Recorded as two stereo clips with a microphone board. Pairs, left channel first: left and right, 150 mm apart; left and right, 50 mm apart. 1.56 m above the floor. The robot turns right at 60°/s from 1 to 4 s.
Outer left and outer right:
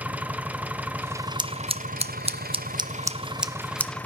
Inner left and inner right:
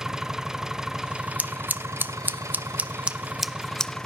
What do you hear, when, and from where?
0.0 s an engine running: 170° right, 1.0 m; by 4.1 s 10° left, 1.0 m
1.4 s scissors: 30° right (ahead or behind), 0.8 m; by 3.9 s 15° left (ahead or behind), 0.8 m